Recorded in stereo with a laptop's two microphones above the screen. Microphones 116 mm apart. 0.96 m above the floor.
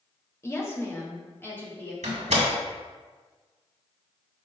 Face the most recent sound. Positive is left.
turn(degrees=-80)